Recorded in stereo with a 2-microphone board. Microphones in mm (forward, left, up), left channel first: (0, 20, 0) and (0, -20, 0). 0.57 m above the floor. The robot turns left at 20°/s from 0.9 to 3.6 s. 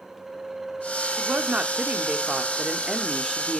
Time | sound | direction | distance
1.2 | a woman speaking | 125° right | 1.0 m